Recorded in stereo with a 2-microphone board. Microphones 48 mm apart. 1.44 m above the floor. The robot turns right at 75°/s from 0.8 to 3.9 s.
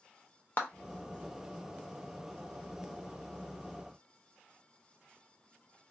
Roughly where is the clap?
Left.